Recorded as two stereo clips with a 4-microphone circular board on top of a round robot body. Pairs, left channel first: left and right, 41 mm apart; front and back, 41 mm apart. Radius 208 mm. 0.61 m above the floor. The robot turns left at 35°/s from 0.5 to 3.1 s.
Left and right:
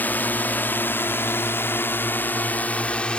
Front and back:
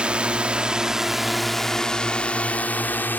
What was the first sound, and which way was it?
A drone, 125° left.